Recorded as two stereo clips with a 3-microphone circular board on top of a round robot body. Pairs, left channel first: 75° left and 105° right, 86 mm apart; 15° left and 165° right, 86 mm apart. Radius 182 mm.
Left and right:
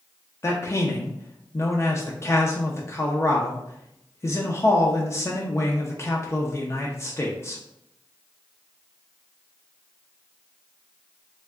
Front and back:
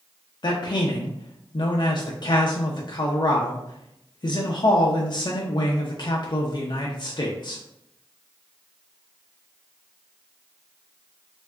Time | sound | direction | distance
0.4 | a man speaking | 25° left | 0.6 m